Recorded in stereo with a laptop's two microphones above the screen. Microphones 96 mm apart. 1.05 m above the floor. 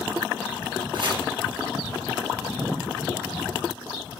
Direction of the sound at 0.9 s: 55° right (ahead or behind).